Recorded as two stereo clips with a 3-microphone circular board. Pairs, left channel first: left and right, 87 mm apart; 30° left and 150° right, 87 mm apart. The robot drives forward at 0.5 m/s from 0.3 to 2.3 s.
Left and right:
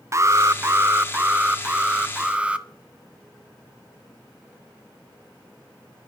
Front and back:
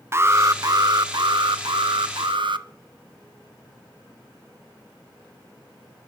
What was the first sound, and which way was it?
An alarm, 115° right.